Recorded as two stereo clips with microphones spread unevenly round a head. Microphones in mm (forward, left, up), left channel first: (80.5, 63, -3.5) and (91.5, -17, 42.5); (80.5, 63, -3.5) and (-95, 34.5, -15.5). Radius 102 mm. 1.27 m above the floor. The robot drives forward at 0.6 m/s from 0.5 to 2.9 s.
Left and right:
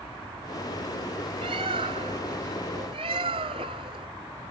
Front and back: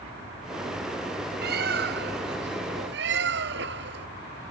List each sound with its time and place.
1.4 s a bird: 125° right; by 4.1 s 130° right